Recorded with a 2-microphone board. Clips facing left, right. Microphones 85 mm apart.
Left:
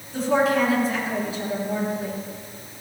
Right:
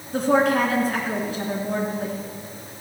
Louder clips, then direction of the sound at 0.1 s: Right 1 dB; 55° right (ahead or behind).